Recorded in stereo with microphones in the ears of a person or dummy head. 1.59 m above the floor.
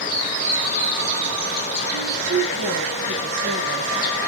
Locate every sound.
1.9 s a woman speaking: 85° right, 2 m; by 4.3 s 30° right (ahead or behind), 2 m